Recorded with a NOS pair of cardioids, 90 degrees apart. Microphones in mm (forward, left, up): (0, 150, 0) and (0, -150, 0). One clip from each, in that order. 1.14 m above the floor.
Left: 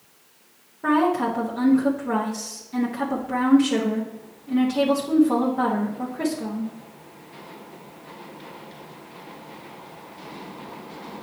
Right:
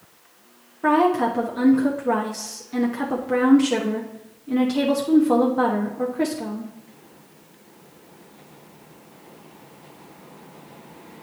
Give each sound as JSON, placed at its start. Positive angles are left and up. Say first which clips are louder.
{"t": 0.8, "sound": "a woman speaking", "louder": "right 2 dB", "azimuth_deg": -20, "distance_m": 1.2}